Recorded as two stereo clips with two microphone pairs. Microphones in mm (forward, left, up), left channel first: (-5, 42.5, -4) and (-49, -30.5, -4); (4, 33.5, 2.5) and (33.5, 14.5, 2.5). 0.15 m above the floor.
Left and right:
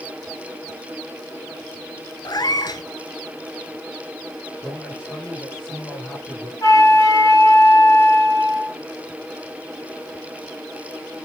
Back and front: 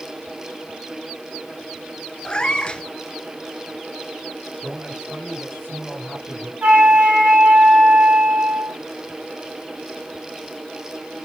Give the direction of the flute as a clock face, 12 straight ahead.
12 o'clock.